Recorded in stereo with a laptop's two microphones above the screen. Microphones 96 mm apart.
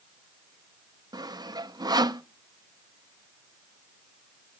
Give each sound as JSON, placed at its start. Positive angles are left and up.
{"t": 1.1, "sound": "sawing", "side_deg": -45, "distance_m": 0.6}